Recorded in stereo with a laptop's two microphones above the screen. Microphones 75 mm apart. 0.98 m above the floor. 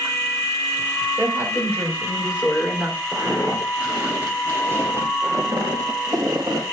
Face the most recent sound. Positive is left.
turn(degrees=-60)  # may be behind; listen again after turning